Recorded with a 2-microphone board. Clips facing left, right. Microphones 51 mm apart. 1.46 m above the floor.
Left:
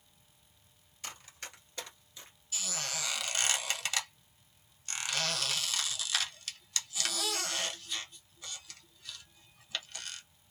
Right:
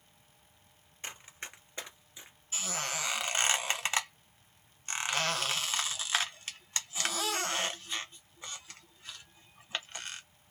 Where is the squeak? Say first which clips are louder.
Right 3 dB; 30° right (ahead or behind), 0.7 m.